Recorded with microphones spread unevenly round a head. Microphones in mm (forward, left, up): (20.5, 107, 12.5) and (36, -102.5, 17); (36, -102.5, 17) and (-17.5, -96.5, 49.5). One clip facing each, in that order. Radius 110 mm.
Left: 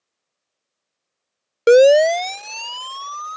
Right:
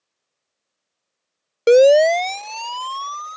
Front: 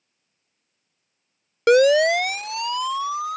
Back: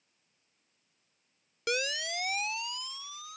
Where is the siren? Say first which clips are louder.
Left 1 dB, front 20 dB; 20° left; by 3.4 s 15° left.